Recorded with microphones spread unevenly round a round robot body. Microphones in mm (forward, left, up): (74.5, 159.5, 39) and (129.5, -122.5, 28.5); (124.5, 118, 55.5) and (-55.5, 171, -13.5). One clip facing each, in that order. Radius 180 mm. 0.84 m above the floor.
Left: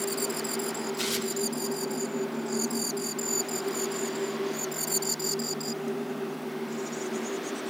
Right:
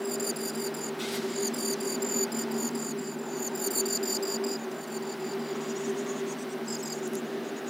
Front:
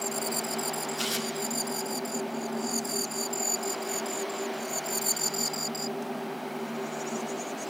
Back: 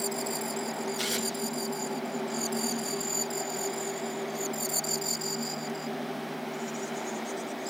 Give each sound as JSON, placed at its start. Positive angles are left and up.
{"t": 1.0, "sound": "tearing paper", "azimuth_deg": 105, "distance_m": 1.1}